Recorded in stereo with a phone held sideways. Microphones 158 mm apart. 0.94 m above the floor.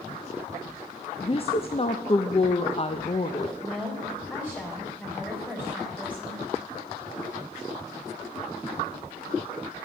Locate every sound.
1.2 s a woman speaking: 40° left (ahead or behind), 0.6 m
3.6 s a woman speaking: 10° left (ahead or behind), 3.5 m